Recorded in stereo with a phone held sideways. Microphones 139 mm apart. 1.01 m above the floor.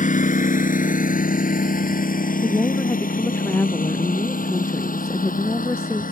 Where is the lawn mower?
70° left (ahead or behind); by 6.1 s 75° left (ahead or behind).